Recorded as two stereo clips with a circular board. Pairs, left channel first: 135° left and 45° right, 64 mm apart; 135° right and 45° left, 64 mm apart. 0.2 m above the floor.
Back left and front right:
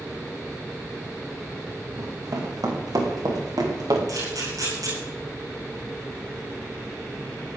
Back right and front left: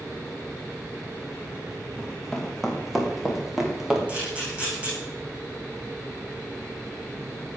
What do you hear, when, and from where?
2.0 s running footsteps: 50° right, 5 m; by 4.0 s 35° right, 4.5 m
4.1 s a camera shutter: 25° right, 9.5 m